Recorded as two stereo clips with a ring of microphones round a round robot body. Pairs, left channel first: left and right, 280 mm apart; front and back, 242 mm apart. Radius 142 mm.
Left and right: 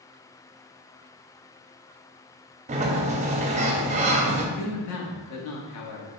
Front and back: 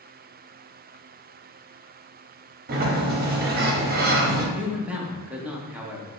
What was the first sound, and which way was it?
A sliding door, 145° right.